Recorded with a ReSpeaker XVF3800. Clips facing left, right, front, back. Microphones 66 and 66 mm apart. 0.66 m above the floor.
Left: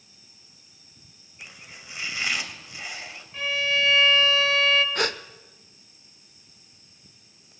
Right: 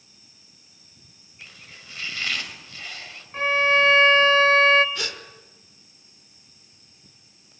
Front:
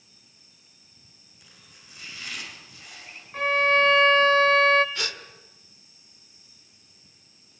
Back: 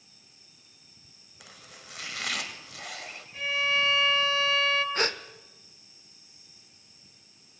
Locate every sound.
1.4 s chopping: 165° left, 2.5 m
3.3 s a violin: 40° right, 1.0 m
5.0 s a gasp: 130° left, 1.2 m